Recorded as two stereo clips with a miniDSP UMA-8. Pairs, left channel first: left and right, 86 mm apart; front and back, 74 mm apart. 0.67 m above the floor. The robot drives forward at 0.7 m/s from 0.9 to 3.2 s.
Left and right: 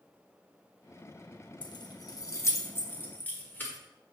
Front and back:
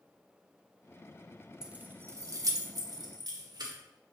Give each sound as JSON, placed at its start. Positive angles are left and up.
{"t": 1.6, "sound": "keys jangling", "azimuth_deg": 100, "distance_m": 0.6}